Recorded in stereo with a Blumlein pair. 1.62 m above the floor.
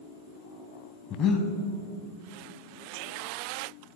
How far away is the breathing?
About 1.0 m.